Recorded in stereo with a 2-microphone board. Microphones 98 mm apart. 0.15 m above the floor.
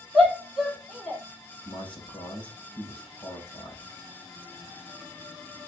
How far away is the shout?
About 4 m.